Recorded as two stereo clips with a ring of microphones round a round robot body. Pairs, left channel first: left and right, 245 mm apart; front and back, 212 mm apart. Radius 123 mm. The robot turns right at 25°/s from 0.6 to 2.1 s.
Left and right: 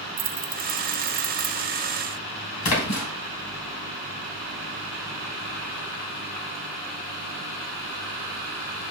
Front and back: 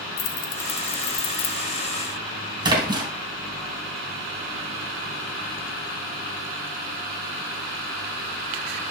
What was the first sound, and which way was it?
Keys jangling, 35° right.